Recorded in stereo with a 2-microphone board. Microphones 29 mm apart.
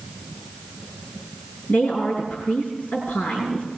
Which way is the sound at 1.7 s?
65° left (ahead or behind).